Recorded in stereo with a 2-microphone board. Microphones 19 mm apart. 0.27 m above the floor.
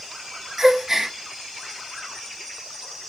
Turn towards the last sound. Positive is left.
turn(degrees=-30)  # may be behind; listen again after turning